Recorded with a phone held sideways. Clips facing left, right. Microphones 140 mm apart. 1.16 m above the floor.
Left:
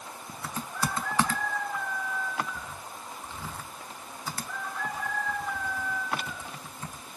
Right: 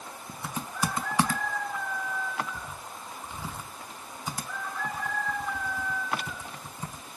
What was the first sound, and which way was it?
Typing on a keyboard, 15° right (ahead or behind).